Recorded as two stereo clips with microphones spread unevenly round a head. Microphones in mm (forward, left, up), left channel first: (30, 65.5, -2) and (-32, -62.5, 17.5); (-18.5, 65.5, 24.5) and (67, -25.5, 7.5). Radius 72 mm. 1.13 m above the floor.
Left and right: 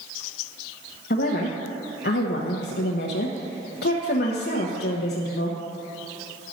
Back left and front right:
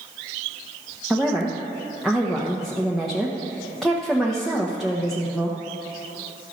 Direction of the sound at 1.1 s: 45° left.